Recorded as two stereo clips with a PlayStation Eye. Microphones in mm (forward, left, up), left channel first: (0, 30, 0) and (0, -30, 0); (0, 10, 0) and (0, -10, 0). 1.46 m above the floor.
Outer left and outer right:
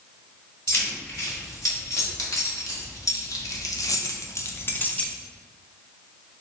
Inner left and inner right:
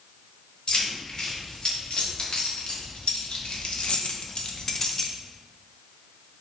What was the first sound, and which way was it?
Keys jangling, 50° left (ahead or behind).